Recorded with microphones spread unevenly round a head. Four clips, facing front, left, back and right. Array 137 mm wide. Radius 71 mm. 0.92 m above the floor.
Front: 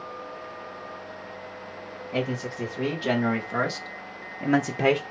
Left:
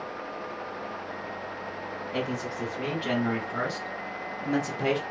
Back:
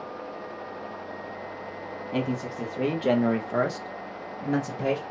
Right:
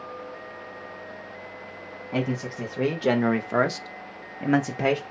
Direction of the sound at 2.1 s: 130° right.